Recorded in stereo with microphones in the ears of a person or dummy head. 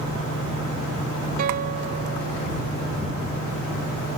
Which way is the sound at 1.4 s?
50° right (ahead or behind).